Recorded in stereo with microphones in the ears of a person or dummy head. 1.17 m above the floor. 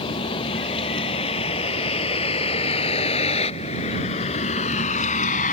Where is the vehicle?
30° left (ahead or behind); by 5.5 s 40° left (ahead or behind).